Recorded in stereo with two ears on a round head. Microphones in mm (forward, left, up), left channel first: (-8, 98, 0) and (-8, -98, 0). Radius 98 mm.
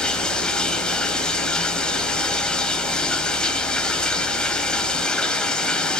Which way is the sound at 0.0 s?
5° left (ahead or behind).